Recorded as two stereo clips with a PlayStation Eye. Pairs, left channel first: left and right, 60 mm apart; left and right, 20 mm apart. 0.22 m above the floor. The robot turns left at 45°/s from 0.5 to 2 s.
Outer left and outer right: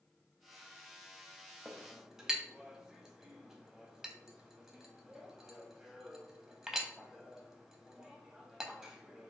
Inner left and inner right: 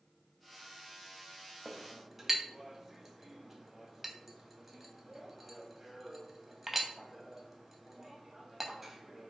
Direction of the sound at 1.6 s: 15° right (ahead or behind).